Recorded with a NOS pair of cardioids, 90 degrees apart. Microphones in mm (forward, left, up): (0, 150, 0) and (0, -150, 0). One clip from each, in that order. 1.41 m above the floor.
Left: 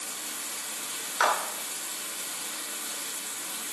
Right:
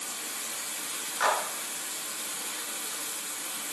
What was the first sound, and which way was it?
Running water, 5° left.